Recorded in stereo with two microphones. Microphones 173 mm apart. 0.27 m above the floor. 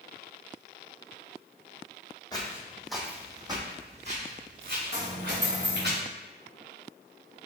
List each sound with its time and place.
2.3 s footsteps: 25° left (ahead or behind), 0.9 m; by 5.9 s 65° right (ahead or behind), 1.9 m
4.9 s a dropped coin: 80° left, 1.4 m